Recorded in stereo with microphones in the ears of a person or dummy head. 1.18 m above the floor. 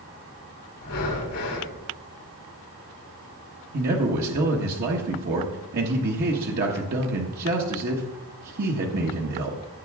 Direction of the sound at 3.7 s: 50° right (ahead or behind).